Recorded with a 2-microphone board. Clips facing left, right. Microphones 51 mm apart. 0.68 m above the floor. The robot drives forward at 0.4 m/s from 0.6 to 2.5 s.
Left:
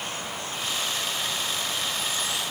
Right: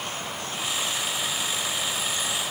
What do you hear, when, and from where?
Only background noise.